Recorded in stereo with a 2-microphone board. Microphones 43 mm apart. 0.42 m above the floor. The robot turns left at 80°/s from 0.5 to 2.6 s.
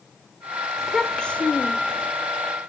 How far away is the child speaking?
About 1.1 m.